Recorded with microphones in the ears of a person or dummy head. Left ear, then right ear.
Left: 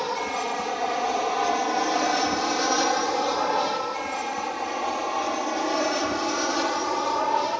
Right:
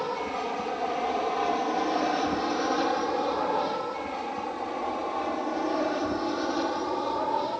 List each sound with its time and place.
0.0 s an aircraft: 70° left (ahead or behind); by 7.6 s 60° left (ahead or behind)